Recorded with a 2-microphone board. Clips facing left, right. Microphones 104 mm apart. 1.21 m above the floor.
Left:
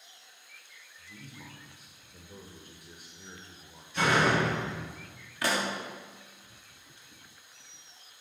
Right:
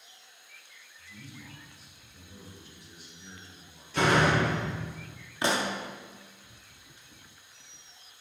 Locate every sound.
1.0 s a man speaking: 50° left (ahead or behind), 1.3 m
3.9 s a door slam: 80° right, 1.7 m
5.4 s a pop: 25° right (ahead or behind), 0.7 m